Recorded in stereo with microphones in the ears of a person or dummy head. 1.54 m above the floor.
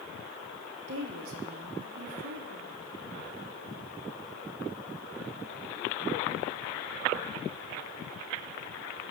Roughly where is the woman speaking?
Right.